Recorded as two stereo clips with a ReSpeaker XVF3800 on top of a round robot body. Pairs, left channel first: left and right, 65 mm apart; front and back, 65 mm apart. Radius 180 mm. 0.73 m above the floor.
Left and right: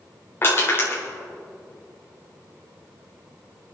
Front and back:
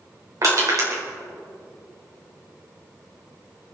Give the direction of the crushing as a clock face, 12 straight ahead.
7 o'clock.